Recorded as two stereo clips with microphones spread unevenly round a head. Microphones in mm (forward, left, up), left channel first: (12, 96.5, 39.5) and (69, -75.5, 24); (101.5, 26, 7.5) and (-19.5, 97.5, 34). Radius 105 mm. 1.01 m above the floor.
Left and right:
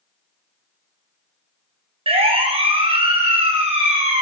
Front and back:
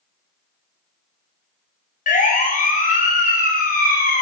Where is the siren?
15° right, 5.5 m.